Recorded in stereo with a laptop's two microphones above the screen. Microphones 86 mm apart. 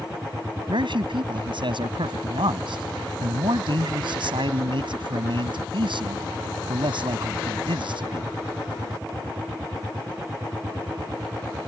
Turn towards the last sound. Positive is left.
turn(degrees=-75)  # may be behind; listen again after turning